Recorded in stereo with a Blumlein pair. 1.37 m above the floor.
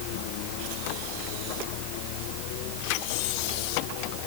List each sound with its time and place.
Only background noise.